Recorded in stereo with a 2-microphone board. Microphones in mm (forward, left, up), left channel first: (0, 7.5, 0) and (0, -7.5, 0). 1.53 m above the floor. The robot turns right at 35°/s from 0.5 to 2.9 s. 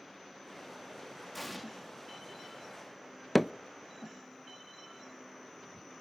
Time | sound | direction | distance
1.3 | an explosion | centre (ahead or behind) | 3 m
3.4 | hammering | 5° right (ahead or behind) | 0.6 m